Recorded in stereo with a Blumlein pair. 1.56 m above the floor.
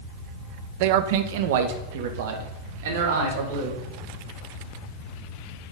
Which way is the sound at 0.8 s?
45° right.